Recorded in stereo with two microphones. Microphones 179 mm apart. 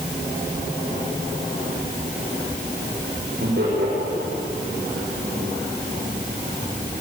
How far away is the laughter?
About 6 m.